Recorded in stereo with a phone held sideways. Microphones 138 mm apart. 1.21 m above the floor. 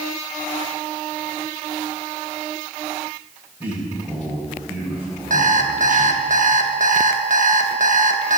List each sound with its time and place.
3.6 s a man speaking: 15° right (ahead or behind), 6 m
5.3 s an alarm clock: 60° right (ahead or behind), 1.1 m